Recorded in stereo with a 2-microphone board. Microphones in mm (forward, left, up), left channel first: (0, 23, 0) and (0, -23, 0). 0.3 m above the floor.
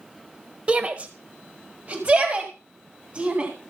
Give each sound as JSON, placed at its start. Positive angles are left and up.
{"t": 0.7, "sound": "a shout", "side_deg": -25, "distance_m": 1.0}